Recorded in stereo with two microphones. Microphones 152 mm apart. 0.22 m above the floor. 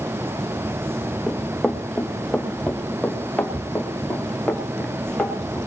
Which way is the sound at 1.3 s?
5° left (ahead or behind).